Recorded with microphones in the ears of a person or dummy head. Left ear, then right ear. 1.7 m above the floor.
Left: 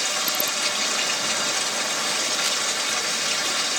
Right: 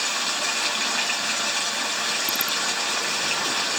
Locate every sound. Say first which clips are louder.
0.0 s running water: even; 10° right (ahead or behind), 2 m